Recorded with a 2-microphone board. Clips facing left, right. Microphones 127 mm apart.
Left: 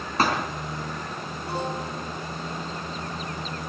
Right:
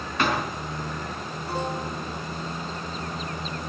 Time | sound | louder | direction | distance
0.2 | a thud | left 1 dB | 35° left (ahead or behind) | 4 m